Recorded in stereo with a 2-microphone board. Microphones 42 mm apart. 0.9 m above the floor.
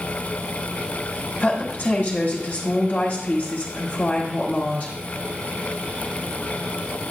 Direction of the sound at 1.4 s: 30° left (ahead or behind).